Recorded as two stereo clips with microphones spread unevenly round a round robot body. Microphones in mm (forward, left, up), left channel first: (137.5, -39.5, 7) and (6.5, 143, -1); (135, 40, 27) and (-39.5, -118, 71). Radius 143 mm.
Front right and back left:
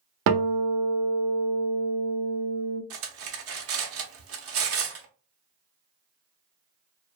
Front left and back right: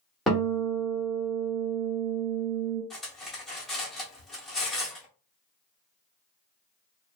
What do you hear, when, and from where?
0.3 s a guitar: 130° left, 0.7 m
2.9 s cutlery clinking: 125° left, 0.6 m